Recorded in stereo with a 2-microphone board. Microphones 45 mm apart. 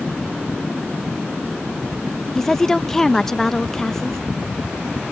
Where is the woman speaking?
10° left (ahead or behind).